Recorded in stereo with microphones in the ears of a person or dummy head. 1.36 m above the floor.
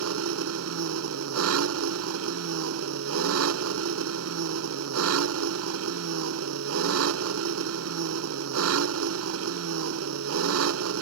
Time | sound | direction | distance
0.0 | an engine running | 85° right | ?